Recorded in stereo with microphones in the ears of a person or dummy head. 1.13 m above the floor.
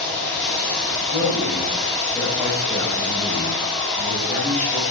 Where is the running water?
5° right (ahead or behind), 5 m.